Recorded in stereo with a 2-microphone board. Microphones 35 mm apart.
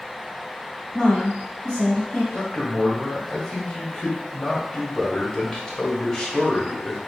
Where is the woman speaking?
20° left (ahead or behind), 1.7 m.